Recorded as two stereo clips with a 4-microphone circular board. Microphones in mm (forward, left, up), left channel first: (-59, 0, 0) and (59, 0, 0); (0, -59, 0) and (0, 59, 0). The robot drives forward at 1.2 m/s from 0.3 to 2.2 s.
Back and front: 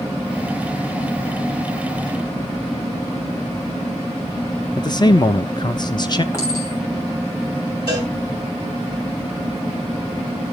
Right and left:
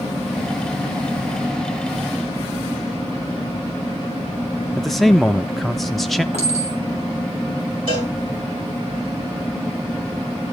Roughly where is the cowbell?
Behind left.